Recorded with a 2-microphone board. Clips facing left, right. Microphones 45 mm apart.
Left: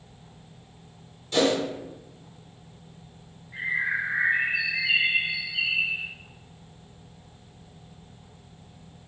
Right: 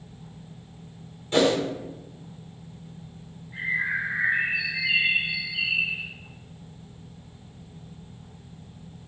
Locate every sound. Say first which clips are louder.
1.3 s a whoosh: right 2 dB; 25° right (ahead or behind), 0.6 m
3.5 s a bird: even; centre (ahead or behind), 1.5 m